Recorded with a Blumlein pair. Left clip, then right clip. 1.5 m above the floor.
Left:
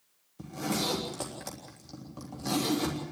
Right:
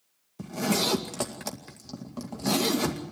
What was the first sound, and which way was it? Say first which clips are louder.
A zipper: right 5 dB; 65° right.